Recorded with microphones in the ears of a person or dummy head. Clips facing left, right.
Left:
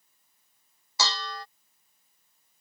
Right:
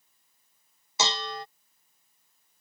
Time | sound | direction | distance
1.0 | dishes clattering | 20° right (ahead or behind) | ?